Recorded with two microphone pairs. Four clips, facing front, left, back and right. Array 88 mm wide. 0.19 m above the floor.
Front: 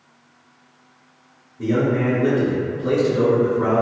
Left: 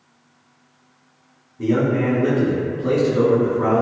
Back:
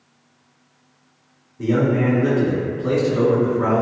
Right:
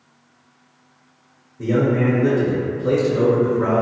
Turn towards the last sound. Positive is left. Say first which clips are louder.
# even, back 1 dB
turn(degrees=125)